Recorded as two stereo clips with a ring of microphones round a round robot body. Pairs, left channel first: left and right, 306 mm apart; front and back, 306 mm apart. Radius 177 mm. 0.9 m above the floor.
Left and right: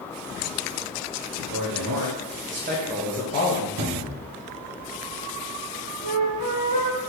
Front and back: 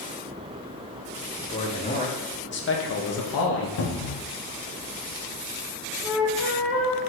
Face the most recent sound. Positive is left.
turn(degrees=-75)